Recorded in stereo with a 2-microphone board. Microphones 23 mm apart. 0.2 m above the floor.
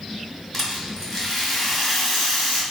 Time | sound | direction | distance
0.5 | a rattle | 15° left (ahead or behind) | 1.4 m